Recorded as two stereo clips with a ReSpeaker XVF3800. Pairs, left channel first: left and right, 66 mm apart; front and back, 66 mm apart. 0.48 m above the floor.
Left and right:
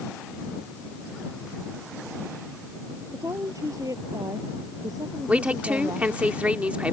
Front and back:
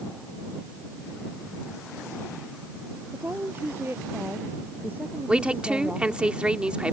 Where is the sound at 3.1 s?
125° right; by 6.3 s 105° right.